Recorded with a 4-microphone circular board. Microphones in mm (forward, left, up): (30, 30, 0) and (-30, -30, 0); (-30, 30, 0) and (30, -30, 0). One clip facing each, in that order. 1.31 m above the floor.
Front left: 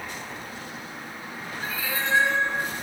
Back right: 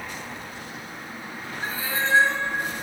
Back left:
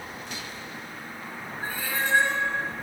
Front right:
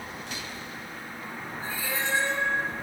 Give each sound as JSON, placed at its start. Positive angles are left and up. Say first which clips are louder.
{"t": 1.6, "sound": "a cat meowing", "louder": "back right 2 dB, back left 2 dB", "azimuth_deg": 170, "distance_m": 3.0}